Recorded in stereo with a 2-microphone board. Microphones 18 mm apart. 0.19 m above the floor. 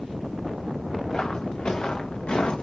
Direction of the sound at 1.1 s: 45° left (ahead or behind).